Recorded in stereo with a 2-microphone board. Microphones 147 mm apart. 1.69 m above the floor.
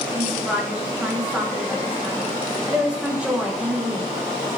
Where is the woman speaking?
5° right (ahead or behind), 2.5 m.